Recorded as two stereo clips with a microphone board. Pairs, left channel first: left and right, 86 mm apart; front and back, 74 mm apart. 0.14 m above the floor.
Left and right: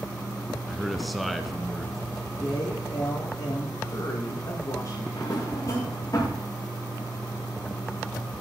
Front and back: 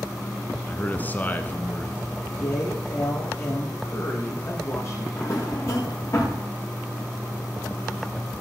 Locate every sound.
0.7 s a man speaking: straight ahead, 1.2 m
2.4 s a woman speaking: 45° left, 6.5 m
5.2 s a drawer: 45° left, 6.5 m